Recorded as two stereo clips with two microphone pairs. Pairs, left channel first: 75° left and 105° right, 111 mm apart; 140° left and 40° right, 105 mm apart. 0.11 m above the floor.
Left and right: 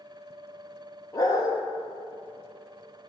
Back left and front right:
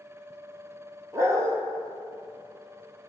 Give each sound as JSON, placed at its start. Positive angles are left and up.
{"t": 1.1, "sound": "a dog barking", "azimuth_deg": 20, "distance_m": 1.0}